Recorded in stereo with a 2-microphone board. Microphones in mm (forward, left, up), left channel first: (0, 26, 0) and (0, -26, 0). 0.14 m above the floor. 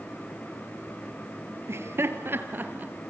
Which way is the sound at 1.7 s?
60° right (ahead or behind).